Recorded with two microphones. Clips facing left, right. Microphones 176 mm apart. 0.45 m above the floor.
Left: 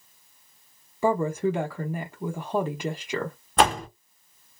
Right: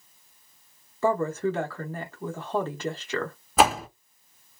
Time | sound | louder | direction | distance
1.0 | a woman speaking | left 1 dB | 15° left (ahead or behind) | 0.8 m
3.6 | a door slam | right 1 dB | 5° right (ahead or behind) | 0.6 m